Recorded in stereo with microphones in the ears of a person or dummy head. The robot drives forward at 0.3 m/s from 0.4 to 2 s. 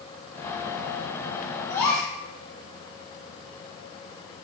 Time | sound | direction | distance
1.7 | a gasp | 15° left (ahead or behind) | 0.7 m